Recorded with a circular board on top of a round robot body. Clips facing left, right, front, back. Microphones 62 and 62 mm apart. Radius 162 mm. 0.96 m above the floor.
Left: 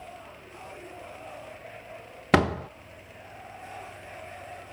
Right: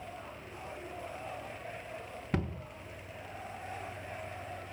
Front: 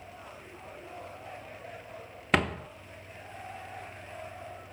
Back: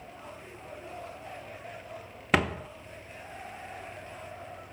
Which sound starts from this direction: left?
A door slam, at 2.3 s.